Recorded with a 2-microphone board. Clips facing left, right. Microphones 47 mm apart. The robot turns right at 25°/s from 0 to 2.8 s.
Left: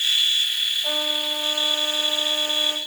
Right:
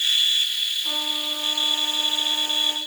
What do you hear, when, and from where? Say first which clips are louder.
0.8 s a trumpet: left 2 dB; 80° left, 5 m; by 2.8 s 130° left, 5 m